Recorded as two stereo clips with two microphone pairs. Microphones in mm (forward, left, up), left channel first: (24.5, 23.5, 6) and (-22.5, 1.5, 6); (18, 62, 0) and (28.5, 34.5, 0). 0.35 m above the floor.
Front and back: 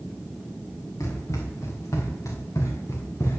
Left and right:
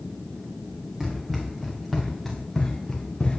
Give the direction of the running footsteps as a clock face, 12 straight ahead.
12 o'clock.